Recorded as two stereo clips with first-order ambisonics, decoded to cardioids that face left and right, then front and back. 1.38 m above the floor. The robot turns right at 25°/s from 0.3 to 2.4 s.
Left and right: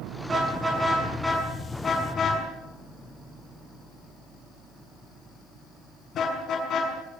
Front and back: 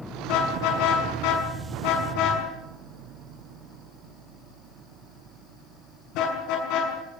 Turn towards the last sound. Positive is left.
turn(degrees=30)